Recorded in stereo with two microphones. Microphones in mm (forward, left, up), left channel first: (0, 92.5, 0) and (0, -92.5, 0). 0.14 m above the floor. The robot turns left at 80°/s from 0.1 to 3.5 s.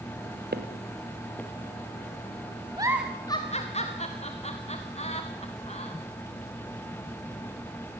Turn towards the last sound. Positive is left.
turn(degrees=35)  # may be behind; listen again after turning